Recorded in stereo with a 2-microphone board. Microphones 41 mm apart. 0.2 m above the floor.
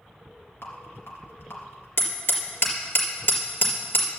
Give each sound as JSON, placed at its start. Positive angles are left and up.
{"t": 0.6, "sound": "a rattle", "side_deg": 65, "distance_m": 3.0}
{"t": 2.0, "sound": "hammering", "side_deg": 65, "distance_m": 3.5}